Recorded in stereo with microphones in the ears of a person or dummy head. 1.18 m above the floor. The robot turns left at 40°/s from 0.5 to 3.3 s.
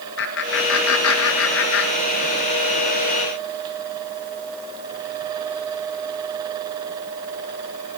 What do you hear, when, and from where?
0.2 s laughter: 55° left (ahead or behind), 1.6 m; by 2.5 s 35° left (ahead or behind), 1.6 m